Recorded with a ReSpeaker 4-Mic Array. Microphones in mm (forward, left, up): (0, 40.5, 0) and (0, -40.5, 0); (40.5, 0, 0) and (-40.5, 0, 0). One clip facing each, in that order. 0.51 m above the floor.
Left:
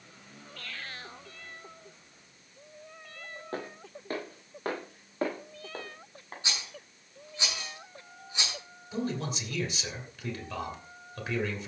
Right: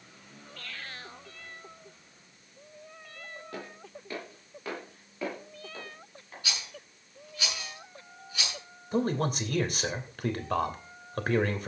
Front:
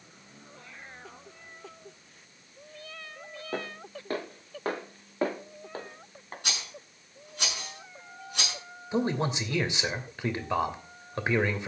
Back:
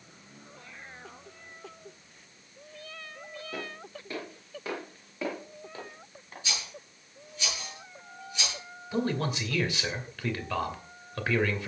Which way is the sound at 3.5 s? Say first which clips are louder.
Left 6 dB, front 5 dB; 40° left.